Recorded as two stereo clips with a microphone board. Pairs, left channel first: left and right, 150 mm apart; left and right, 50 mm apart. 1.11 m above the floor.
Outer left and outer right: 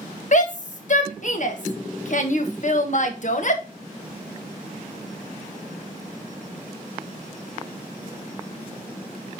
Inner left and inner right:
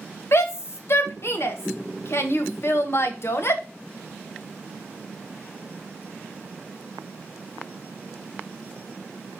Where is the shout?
55° left (ahead or behind), 1.4 m.